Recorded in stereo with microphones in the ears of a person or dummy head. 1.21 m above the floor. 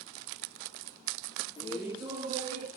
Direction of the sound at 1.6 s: 25° left (ahead or behind).